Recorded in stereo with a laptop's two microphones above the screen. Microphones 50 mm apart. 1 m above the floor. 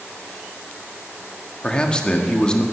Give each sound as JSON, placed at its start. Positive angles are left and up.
{"t": 1.6, "sound": "a man speaking", "side_deg": 15, "distance_m": 1.8}